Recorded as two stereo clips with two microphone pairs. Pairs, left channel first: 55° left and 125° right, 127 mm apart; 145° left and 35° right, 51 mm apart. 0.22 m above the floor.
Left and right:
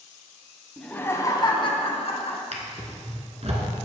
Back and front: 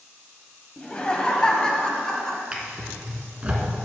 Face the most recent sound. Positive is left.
turn(degrees=-100)